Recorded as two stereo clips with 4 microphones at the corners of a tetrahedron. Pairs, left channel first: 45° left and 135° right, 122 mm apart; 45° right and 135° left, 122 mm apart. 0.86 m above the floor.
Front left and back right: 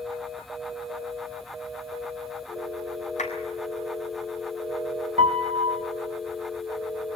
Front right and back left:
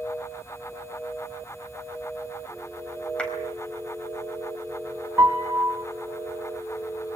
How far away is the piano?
About 1.6 m.